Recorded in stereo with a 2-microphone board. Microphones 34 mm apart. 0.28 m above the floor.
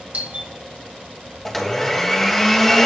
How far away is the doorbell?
About 2.5 m.